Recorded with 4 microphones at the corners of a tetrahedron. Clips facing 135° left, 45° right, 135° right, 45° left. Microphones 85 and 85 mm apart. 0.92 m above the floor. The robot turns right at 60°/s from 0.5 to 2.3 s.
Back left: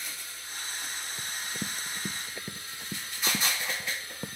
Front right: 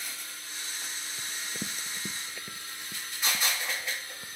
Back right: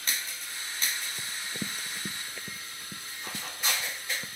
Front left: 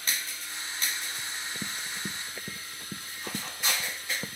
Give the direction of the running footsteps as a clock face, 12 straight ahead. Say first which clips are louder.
Back left 1 dB, even; 5 o'clock.